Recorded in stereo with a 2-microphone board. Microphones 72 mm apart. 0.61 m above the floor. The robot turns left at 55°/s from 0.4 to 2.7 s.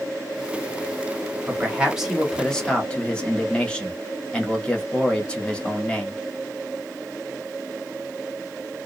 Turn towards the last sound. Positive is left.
turn(degrees=155)